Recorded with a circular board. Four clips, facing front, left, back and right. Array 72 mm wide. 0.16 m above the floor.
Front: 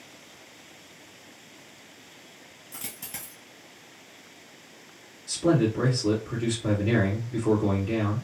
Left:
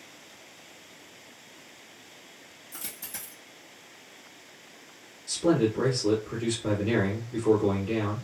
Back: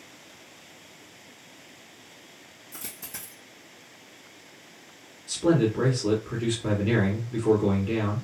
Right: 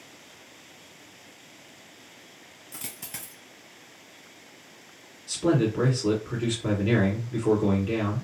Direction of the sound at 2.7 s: 65° right.